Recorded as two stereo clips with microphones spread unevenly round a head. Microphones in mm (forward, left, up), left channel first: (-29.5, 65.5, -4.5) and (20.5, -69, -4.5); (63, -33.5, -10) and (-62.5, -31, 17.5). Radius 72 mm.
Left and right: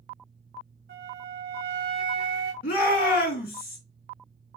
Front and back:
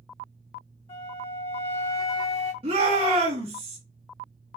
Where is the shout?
135° left, 2 m.